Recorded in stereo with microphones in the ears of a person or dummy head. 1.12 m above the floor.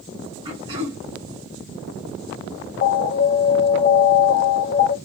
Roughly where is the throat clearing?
Right.